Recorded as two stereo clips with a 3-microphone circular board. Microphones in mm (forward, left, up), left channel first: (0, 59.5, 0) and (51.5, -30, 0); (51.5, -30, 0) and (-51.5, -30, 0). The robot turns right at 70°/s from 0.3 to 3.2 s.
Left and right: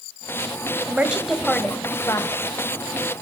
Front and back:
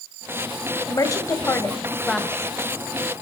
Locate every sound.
0.9 s a woman speaking: 5° right, 1.4 m; by 2.4 s 105° left, 1.4 m